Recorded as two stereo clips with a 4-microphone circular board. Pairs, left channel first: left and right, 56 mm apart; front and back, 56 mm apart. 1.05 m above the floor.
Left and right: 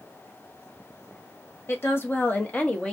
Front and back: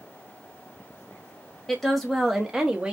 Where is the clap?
I don't hear a clap.